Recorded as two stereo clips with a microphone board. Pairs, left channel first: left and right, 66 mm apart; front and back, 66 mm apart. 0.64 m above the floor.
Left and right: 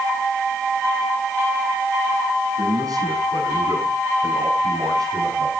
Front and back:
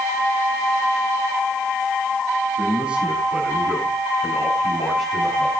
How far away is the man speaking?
About 6 m.